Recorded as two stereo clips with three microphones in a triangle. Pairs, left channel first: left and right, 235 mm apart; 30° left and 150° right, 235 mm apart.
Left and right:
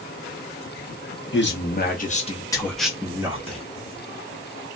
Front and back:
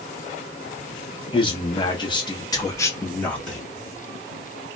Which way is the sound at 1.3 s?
90° left.